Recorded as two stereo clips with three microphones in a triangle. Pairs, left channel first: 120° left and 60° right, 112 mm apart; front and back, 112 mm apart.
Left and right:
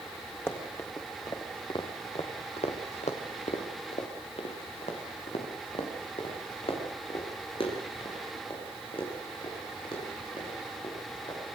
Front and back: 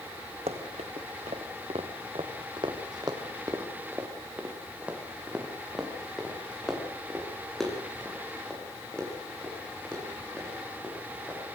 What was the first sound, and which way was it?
Running footsteps, 170° right.